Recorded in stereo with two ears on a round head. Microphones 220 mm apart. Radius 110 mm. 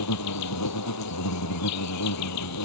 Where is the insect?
80° left.